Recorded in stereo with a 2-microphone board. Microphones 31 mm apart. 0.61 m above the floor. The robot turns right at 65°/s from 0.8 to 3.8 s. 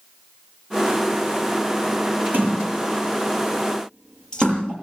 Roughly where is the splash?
Right.